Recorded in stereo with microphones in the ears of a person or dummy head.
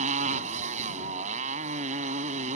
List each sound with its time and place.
0.0 s a motorcycle: 40° right (ahead or behind)